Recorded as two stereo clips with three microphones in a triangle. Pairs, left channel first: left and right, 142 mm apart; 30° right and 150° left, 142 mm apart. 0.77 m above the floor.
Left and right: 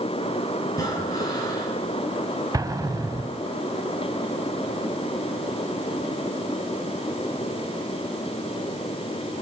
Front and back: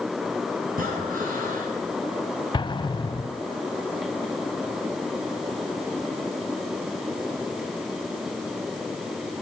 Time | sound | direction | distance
0.7 | breathing | 155° left | 6 m
2.5 | an explosion | 45° right | 0.7 m